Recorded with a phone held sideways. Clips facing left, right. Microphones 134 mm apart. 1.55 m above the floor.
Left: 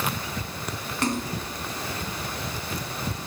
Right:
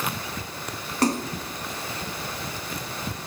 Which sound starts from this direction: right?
A splash, at 1.0 s.